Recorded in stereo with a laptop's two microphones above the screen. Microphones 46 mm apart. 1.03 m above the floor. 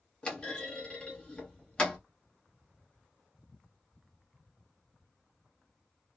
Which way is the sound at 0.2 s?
20° left (ahead or behind).